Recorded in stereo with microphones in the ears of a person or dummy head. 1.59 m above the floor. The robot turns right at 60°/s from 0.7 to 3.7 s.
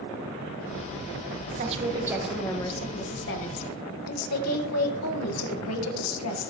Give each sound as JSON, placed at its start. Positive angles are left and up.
{"t": 1.6, "sound": "a woman speaking", "azimuth_deg": -45, "distance_m": 1.7}